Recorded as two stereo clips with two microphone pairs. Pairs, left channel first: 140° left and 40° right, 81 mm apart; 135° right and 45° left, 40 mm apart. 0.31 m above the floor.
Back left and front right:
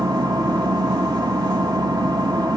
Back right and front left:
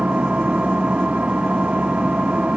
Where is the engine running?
15° right, 1.4 m.